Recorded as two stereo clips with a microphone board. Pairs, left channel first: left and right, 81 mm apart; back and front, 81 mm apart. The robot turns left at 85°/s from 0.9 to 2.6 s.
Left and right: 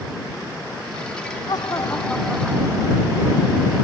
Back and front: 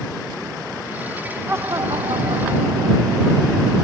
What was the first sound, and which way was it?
Laughter, 65° left.